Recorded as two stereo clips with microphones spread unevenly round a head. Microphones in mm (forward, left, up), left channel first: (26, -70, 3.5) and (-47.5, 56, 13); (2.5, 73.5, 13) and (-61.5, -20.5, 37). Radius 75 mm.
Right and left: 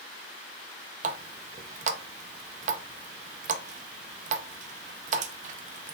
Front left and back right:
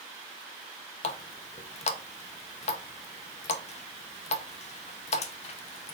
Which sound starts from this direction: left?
A running tap, at 1.0 s.